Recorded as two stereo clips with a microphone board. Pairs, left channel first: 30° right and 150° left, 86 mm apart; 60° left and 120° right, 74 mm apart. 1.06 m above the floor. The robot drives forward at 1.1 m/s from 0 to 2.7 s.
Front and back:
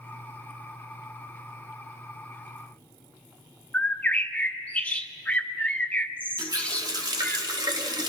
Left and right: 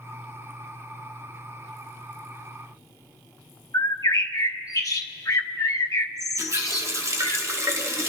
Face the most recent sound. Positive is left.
turn(degrees=-170)